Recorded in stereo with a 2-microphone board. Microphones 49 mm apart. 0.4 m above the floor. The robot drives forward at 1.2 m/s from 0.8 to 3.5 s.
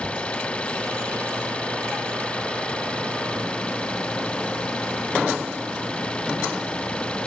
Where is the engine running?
25° left (ahead or behind).